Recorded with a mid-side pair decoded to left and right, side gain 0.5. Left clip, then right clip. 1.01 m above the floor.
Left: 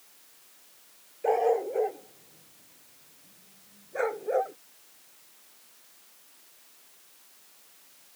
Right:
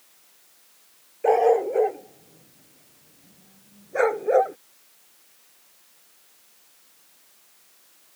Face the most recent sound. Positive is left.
turn(degrees=-50)